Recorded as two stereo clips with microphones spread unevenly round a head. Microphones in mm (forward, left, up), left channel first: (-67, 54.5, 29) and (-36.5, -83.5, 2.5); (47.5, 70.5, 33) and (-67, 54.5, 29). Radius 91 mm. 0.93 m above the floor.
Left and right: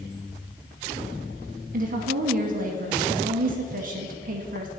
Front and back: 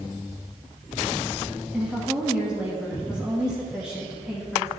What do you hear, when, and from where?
1.7 s a woman speaking: 90° right, 1.0 m